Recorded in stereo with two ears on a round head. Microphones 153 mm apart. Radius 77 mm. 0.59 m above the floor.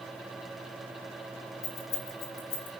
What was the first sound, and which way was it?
Keys jangling, 40° left (ahead or behind).